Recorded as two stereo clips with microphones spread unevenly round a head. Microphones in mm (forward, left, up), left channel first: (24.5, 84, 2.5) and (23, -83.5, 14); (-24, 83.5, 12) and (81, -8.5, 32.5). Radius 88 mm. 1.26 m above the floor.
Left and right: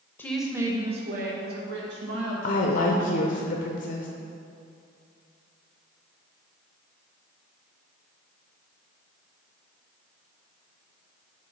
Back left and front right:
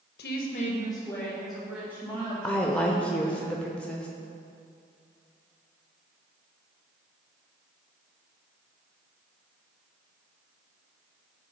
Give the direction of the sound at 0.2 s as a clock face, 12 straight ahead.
6 o'clock.